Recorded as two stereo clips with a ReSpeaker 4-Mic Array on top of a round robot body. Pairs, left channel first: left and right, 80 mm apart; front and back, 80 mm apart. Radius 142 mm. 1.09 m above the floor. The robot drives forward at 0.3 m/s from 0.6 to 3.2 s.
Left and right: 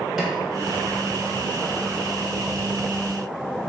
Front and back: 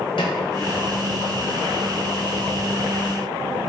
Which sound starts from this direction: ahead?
A snare drum, at 0.2 s.